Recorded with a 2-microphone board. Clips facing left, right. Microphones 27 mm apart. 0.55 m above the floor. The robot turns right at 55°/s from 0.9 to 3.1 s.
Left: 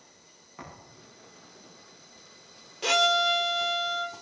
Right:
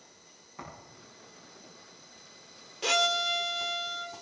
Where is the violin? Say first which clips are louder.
Left 4 dB; centre (ahead or behind), 0.9 m; by 4.1 s 15° left (ahead or behind), 0.9 m.